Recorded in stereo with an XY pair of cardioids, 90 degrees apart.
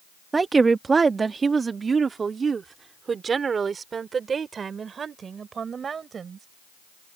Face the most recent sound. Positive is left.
turn(degrees=-50)